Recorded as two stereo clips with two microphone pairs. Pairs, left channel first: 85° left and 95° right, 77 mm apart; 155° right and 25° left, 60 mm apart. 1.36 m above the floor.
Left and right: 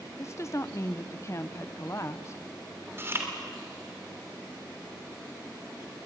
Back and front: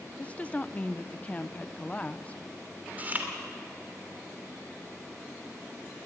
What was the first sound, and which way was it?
A woman speaking, 135° left.